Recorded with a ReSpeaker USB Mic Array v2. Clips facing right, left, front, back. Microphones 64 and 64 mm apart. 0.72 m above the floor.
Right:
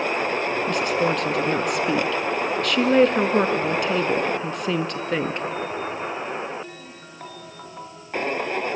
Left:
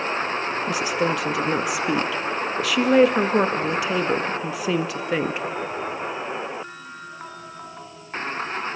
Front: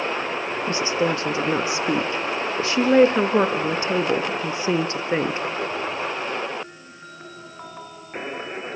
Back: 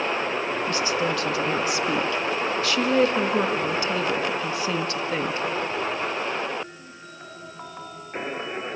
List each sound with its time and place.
0.7 s a woman speaking: 5° left, 0.6 m